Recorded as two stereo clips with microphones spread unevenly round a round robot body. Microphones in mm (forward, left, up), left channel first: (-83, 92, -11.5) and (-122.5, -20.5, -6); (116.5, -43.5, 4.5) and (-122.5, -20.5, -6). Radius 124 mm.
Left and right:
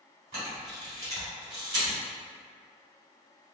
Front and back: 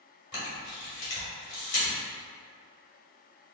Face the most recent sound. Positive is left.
turn(degrees=-65)